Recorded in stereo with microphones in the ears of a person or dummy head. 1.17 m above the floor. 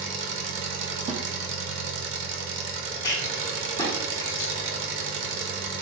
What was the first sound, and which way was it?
An engine running, 70° right (ahead or behind).